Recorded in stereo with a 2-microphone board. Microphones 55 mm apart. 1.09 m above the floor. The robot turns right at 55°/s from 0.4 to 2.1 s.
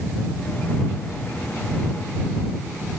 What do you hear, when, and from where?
Only background noise.